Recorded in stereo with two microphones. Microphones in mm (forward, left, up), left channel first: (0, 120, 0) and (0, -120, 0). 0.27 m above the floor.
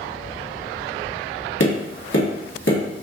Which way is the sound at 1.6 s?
60° left (ahead or behind).